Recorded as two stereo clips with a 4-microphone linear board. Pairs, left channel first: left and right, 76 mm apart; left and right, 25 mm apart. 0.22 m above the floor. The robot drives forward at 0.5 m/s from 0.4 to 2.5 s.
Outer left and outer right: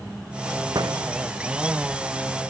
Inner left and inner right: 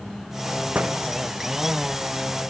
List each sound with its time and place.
0.8 s a door slam: 65° right (ahead or behind)